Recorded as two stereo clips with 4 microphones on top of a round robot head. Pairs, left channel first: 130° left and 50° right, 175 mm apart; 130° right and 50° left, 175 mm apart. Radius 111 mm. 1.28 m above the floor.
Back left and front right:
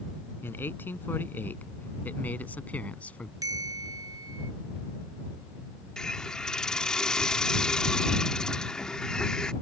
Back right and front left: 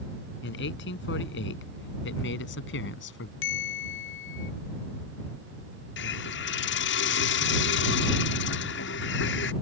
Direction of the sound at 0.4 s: 150° right.